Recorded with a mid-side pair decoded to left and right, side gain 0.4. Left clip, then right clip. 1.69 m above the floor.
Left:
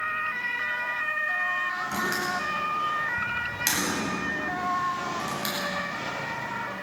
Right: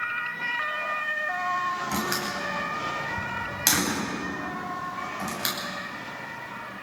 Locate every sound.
1.9 s a door slam: 40° right, 9 m